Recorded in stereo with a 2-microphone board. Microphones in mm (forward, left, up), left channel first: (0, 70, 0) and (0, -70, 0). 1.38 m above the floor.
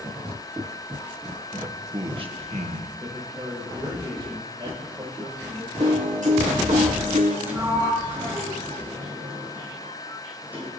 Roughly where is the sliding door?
Centre.